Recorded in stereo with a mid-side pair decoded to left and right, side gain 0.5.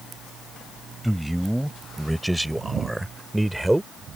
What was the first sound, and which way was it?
A man speaking, 10° right.